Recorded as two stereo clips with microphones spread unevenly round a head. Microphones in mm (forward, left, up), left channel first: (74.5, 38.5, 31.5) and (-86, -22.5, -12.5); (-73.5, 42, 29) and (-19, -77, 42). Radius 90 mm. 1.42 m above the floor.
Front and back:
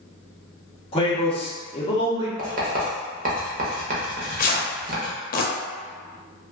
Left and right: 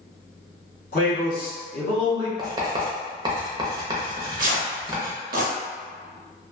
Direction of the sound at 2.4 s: 115° right.